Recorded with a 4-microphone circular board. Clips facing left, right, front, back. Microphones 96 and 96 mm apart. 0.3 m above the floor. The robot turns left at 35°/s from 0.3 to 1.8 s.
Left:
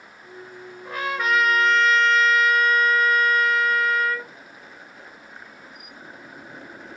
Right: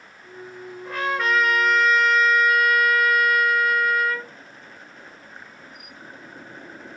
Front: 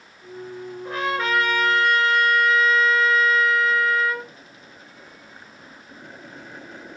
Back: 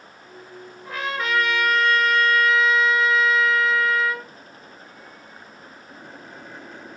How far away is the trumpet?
About 0.7 m.